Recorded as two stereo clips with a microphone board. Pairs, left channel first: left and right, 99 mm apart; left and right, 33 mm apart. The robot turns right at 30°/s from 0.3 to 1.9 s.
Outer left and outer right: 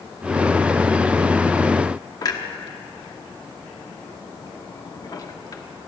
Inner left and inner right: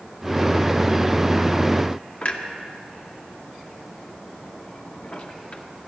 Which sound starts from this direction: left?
A clunk, at 2.2 s.